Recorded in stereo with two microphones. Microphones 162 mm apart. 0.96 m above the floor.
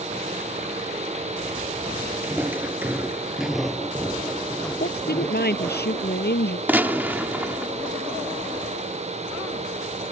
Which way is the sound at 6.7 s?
10° right (ahead or behind).